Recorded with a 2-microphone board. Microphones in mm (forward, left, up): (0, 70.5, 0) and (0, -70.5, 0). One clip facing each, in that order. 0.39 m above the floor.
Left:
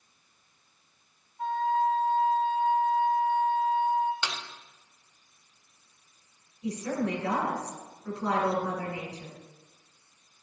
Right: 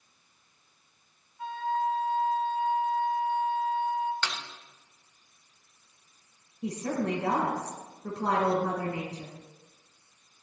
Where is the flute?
45° left (ahead or behind), 2.5 m.